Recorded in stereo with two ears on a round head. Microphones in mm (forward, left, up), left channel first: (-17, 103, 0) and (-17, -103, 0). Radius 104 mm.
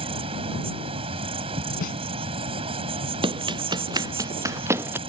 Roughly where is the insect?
Right.